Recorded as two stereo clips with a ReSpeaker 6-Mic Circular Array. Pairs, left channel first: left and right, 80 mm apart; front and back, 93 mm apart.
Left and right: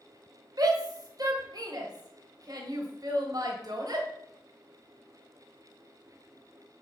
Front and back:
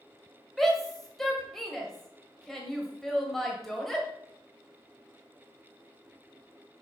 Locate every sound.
0.6 s a shout: 85° right, 1.5 m